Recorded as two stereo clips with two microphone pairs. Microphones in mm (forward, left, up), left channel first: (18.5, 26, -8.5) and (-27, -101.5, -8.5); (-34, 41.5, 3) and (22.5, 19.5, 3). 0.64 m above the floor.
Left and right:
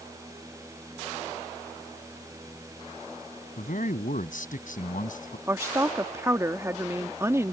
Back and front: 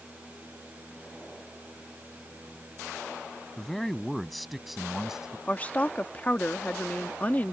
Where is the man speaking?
80° left; by 5.4 s 60° left.